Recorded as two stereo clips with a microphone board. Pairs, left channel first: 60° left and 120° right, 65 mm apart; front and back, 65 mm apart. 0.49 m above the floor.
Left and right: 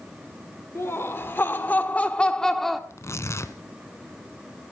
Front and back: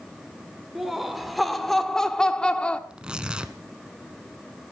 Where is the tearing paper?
105° left, 1.2 m.